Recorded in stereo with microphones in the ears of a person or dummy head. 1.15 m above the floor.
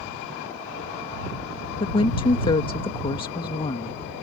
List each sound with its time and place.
1.8 s a woman speaking: 30° left (ahead or behind)